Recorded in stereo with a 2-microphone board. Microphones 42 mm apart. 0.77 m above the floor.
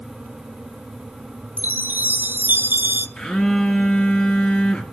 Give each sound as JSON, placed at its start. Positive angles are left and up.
{"t": 1.6, "sound": "a chime", "side_deg": -50, "distance_m": 1.1}
{"t": 3.2, "sound": "a phone buzzing", "side_deg": 25, "distance_m": 2.5}